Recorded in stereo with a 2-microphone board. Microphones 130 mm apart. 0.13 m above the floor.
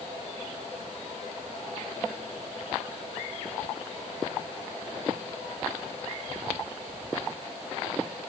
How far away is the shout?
No shout in this recording.